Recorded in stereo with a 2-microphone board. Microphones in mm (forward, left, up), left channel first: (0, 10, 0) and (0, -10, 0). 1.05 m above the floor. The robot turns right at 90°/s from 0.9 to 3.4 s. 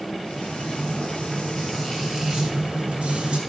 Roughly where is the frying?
Left.